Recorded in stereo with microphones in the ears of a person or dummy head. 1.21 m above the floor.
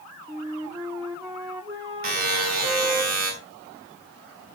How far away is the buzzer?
About 5 m.